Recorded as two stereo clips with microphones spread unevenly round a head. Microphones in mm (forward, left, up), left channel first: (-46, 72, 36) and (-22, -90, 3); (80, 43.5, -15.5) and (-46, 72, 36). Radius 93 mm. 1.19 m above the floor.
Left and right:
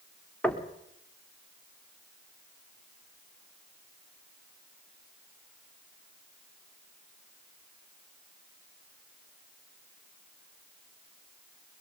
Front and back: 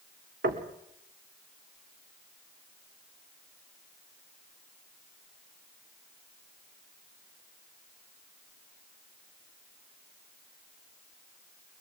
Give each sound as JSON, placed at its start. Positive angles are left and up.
{"t": 0.4, "sound": "knocking", "azimuth_deg": 180, "distance_m": 1.9}